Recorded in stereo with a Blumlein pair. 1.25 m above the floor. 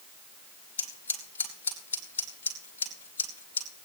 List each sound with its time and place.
0.8 s scissors: 65° left, 2.5 m